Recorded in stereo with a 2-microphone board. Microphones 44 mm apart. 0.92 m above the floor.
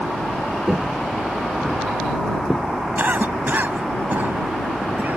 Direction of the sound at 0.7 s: 10° right (ahead or behind).